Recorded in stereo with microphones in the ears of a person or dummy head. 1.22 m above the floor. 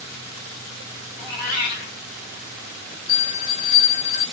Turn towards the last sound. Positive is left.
turn(degrees=-15)  # may be behind; listen again after turning